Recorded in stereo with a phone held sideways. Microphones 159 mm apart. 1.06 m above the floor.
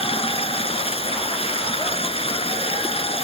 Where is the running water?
35° left (ahead or behind).